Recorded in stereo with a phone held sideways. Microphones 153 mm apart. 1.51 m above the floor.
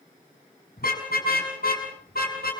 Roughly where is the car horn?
Left.